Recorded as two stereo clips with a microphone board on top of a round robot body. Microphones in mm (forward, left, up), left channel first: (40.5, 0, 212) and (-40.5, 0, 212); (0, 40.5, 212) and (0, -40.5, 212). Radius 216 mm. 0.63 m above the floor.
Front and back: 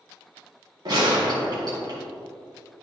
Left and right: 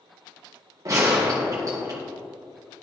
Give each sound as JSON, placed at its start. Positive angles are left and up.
{"t": 0.8, "sound": "a gunshot", "azimuth_deg": -140, "distance_m": 1.3}